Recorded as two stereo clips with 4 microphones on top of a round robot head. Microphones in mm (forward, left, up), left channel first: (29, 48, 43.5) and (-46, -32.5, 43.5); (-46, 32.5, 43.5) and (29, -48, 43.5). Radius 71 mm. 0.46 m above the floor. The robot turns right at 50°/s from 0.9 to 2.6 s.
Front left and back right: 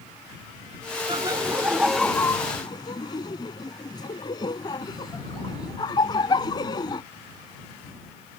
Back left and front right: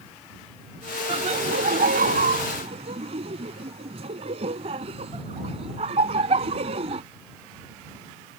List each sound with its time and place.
1.1 s laughter: 85° right; by 7.0 s 10° right